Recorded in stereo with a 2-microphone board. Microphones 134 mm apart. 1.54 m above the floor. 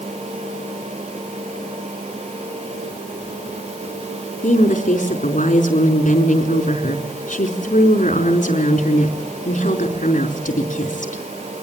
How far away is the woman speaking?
About 4.5 m.